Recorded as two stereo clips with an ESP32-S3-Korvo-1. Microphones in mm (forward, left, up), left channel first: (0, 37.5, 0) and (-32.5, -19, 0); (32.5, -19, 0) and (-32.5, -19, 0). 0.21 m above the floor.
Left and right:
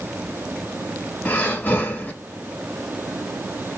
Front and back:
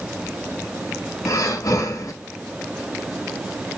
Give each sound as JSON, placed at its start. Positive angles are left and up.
{"t": 1.2, "sound": "breathing", "azimuth_deg": 0, "distance_m": 0.7}